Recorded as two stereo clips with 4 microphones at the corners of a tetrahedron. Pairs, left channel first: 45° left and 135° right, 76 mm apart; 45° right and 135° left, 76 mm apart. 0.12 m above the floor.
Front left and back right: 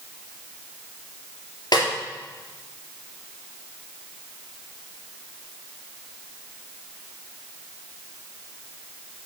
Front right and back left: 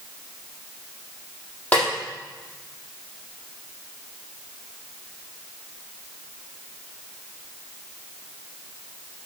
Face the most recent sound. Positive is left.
turn(degrees=25)